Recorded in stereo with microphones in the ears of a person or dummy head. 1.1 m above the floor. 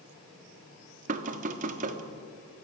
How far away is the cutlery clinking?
No cutlery clinking in this recording.